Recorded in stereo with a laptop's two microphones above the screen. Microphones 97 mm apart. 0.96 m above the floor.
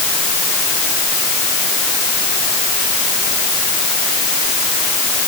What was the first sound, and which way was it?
Only background noise.